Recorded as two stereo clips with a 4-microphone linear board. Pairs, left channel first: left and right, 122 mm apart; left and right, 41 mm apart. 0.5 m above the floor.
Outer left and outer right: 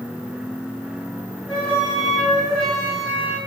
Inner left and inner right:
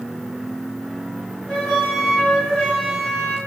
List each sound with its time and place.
1.5 s a flute: 10° left (ahead or behind), 2.0 m